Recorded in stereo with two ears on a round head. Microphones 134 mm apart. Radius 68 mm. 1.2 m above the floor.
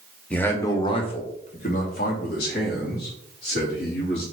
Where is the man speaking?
5° left (ahead or behind), 0.9 m; by 4.2 s 80° left, 2.5 m.